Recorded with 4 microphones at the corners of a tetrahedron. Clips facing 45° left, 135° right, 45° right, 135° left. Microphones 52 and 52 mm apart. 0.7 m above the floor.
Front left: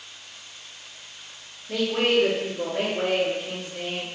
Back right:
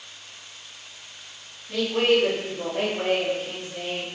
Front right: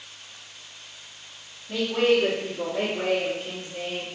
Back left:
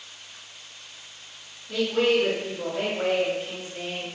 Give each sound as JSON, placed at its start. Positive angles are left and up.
{"t": 1.7, "sound": "a woman speaking", "azimuth_deg": 20, "distance_m": 0.7}